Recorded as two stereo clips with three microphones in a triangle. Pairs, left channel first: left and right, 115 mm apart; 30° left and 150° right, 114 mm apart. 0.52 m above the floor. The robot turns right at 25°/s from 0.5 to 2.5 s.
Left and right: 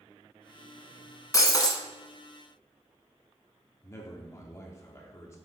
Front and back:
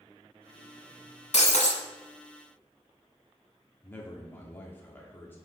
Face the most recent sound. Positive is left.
turn(degrees=75)